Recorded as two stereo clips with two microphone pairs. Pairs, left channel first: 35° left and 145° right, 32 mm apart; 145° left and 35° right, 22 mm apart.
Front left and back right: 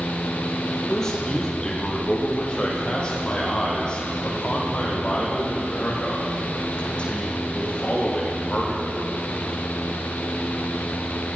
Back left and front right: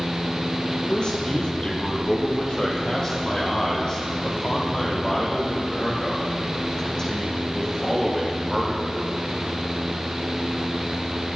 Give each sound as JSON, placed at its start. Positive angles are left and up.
{"t": 0.9, "sound": "a man speaking", "azimuth_deg": 105, "distance_m": 6.5}